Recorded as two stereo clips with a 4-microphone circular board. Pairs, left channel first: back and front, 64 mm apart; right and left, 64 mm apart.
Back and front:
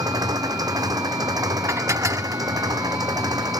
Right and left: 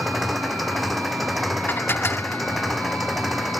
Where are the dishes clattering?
35° right.